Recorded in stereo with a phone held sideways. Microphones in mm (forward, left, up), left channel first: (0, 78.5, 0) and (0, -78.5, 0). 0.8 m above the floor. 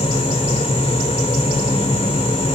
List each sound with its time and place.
0.0 s a fan: 40° left (ahead or behind), 2.0 m